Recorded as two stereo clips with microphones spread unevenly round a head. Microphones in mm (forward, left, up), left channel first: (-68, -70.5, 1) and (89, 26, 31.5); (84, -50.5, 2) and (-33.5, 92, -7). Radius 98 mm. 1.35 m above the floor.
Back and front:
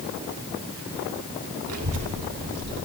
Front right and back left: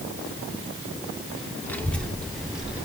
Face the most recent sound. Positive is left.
turn(degrees=45)